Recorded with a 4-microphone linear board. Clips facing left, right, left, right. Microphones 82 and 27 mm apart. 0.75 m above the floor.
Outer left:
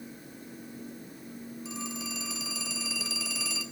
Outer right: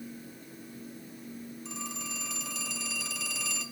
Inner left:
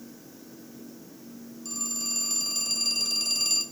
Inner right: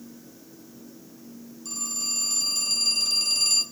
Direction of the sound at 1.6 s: 5° left (ahead or behind).